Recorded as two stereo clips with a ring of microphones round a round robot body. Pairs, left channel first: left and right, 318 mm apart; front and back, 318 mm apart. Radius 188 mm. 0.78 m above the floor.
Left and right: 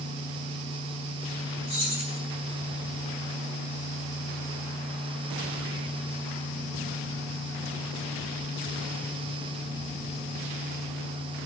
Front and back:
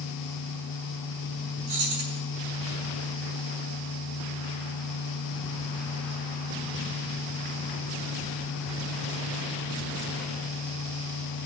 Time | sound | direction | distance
1.7 | keys jangling | 165° right | 7 m